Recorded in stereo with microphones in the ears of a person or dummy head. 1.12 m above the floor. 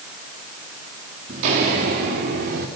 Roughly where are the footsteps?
Right.